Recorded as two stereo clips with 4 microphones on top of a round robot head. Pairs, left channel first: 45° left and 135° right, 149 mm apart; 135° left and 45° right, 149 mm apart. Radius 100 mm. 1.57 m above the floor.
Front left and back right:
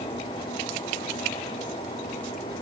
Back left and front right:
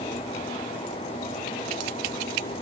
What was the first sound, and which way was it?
Only background noise.